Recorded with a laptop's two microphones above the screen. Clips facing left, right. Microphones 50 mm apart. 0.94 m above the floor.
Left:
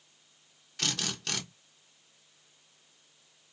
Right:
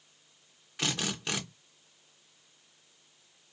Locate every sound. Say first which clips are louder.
0.8 s a drill: right 2 dB; 15° right (ahead or behind), 1.2 m